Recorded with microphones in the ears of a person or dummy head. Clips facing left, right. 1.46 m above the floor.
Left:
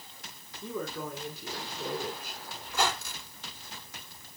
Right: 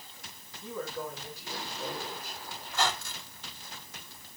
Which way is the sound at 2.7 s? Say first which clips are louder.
Left 1 dB; 80° left.